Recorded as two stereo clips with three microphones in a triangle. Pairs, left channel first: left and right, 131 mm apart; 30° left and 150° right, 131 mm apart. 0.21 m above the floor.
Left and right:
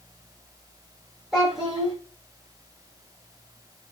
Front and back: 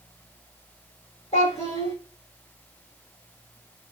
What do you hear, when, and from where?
1.3 s a child speaking: 5° right, 6 m